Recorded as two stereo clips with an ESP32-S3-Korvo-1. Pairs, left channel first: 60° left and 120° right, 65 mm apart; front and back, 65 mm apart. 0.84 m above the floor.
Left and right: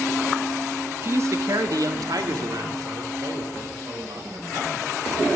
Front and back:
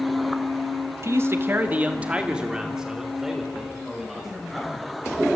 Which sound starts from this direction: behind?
A man speaking, at 1.0 s.